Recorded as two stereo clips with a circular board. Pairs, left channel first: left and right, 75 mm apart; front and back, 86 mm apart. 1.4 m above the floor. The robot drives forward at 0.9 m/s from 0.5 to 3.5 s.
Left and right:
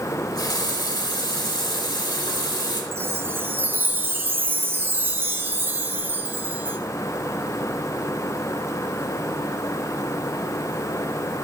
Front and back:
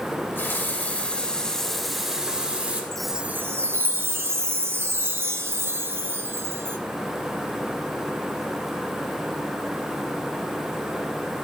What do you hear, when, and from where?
0.1 s a running tap: 65° left, 3 m; by 2.8 s 110° left, 3 m
2.9 s a chime: 75° right, 0.8 m; by 6.8 s 135° right, 0.9 m